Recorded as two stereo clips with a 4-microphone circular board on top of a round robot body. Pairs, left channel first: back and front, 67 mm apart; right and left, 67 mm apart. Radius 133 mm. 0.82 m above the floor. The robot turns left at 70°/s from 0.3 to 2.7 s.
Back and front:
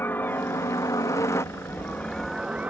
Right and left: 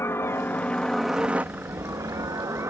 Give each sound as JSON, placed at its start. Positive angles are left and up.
{"t": 0.0, "sound": "a helicopter", "azimuth_deg": -130}